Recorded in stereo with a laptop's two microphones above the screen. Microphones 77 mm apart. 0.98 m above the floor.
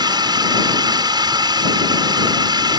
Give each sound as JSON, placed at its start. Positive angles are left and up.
{"t": 0.0, "sound": "a drone", "side_deg": -70}